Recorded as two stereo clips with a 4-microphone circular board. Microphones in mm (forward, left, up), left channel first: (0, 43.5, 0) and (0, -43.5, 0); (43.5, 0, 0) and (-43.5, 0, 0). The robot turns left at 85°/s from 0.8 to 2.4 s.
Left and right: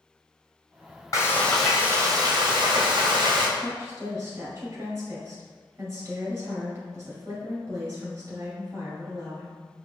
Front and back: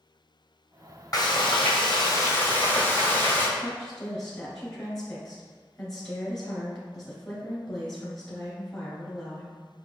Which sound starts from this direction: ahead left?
Frying, at 1.1 s.